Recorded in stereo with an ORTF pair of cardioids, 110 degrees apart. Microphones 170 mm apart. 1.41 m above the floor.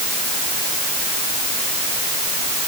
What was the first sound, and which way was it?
Only background noise.